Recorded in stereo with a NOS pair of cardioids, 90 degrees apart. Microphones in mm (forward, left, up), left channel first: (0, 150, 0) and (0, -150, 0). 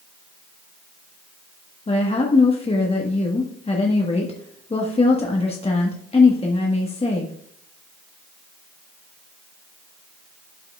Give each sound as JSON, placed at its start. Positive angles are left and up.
{"t": 1.9, "sound": "a woman speaking", "azimuth_deg": 20, "distance_m": 1.3}